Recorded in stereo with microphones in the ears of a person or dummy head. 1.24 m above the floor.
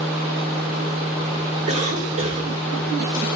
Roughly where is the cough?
Right.